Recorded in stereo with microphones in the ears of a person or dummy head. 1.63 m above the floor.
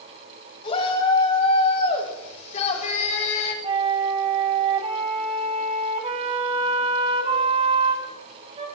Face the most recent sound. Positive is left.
turn(degrees=-30)  # may be behind; listen again after turning